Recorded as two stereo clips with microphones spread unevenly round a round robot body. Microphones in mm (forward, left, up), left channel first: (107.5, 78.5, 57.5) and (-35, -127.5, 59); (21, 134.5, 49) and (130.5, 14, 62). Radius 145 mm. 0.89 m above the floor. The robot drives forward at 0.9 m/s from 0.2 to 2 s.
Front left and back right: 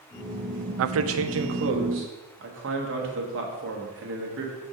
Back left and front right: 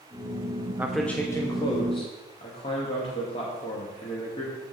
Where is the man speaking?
125° right, 0.5 m; by 4.5 s 165° right, 1.4 m.